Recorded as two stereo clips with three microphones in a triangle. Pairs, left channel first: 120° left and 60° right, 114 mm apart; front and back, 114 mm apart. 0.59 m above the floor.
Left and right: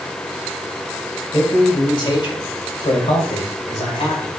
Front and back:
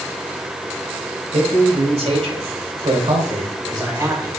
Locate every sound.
1.3 s a man speaking: 175° left, 3 m; by 4.3 s 115° left, 2 m